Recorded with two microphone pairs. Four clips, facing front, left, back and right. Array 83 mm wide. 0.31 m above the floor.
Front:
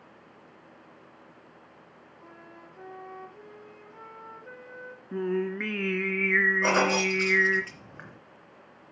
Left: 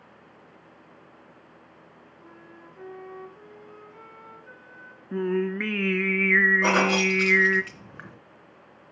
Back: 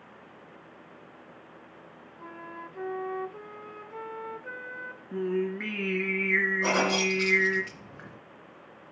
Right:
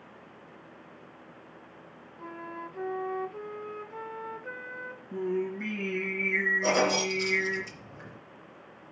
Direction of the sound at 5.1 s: 75° left.